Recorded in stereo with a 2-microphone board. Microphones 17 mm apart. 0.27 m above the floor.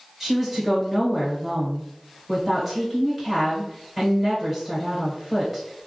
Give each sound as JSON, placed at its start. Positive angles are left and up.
{"t": 0.2, "sound": "a woman speaking", "side_deg": -5, "distance_m": 1.1}